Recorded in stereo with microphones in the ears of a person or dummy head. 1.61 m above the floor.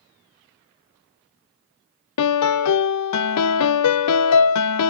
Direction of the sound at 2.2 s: 80° left.